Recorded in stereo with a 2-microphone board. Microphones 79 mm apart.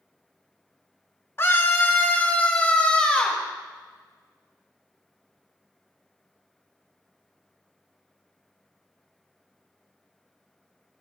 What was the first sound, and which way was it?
A scream, 30° left (ahead or behind).